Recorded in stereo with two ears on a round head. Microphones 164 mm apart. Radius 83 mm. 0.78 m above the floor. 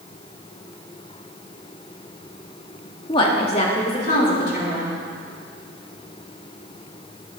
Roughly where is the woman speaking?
Left.